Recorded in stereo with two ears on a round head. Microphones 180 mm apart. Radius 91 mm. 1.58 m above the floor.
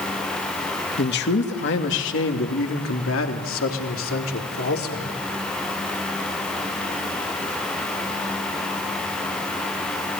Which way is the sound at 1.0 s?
60° left (ahead or behind).